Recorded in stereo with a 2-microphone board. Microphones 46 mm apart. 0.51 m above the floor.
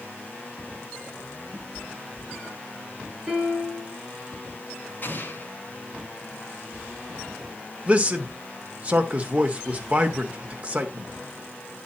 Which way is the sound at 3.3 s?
5° right (ahead or behind).